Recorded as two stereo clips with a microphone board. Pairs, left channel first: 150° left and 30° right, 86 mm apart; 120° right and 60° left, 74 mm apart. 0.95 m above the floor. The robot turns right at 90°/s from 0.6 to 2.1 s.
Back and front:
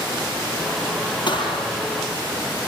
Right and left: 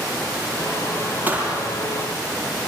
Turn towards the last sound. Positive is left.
turn(degrees=-155)